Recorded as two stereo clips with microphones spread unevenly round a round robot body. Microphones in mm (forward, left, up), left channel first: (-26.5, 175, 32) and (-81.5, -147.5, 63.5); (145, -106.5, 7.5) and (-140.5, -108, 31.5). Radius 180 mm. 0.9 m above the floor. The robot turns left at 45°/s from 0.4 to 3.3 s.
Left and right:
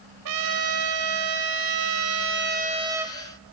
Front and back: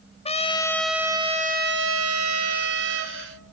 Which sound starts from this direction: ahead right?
A trumpet, at 0.2 s.